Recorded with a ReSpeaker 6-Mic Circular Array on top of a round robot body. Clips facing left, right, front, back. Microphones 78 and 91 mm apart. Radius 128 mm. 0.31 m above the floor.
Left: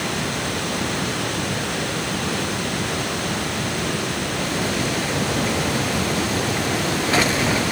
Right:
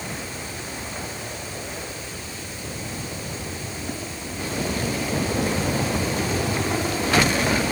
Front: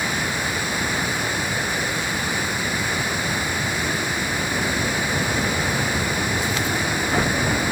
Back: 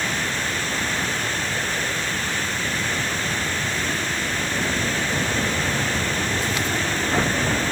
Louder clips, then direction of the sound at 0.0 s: Left 8 dB, front 1 dB; 80° left.